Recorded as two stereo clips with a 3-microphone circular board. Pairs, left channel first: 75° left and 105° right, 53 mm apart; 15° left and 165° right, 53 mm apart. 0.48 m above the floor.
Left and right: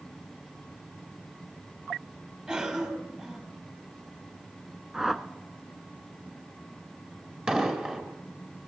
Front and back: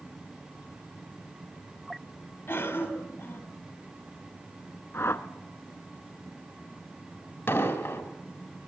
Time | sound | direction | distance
2.5 | a cough | 35° right | 4.5 m
4.9 | a whoosh | 25° right | 1.0 m
7.5 | an explosion | 35° right | 3.5 m